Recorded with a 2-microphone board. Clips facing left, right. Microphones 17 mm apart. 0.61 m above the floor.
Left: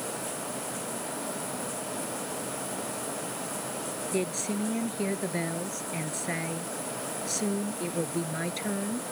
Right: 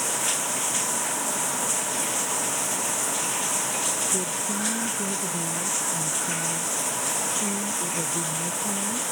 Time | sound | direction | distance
0.0 | running water | 80° right | ?
4.1 | a woman speaking | 65° left (ahead or behind) | ?